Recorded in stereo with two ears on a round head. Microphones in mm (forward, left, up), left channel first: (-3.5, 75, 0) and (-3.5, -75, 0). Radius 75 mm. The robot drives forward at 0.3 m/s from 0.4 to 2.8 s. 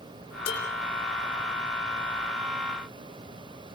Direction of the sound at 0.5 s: 85° left.